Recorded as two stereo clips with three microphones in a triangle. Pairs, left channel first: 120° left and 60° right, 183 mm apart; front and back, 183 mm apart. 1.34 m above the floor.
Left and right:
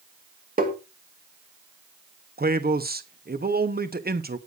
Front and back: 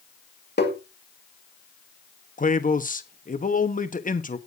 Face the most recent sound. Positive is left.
turn(degrees=-35)